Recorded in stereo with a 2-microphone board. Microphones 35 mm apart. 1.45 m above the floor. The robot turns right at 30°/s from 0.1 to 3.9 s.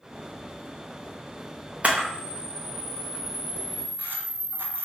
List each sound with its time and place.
1.8 s a camera shutter: 45° right (ahead or behind), 0.6 m; by 4.8 s 75° right (ahead or behind), 0.6 m